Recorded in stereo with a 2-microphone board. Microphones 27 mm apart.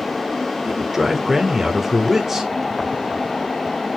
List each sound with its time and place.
0.7 s a man speaking: 10° right (ahead or behind), 1.2 m